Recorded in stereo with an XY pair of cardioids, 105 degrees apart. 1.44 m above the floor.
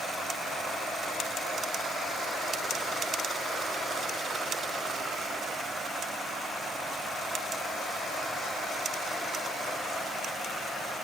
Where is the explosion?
I don't hear an explosion.